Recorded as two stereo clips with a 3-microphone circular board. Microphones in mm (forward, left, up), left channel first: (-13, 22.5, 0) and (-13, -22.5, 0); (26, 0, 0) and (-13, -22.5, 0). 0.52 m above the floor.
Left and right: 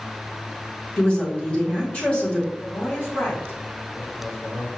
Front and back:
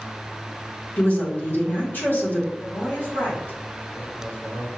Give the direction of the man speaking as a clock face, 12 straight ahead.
10 o'clock.